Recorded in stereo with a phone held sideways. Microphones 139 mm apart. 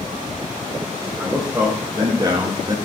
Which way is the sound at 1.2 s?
10° right (ahead or behind).